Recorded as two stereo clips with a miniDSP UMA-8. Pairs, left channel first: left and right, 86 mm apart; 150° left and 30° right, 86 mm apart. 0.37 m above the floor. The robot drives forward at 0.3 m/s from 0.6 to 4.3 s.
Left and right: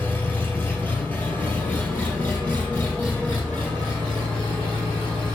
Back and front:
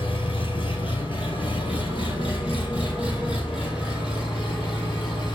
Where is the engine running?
160° left, 2.5 m; by 5.3 s 165° left, 4 m.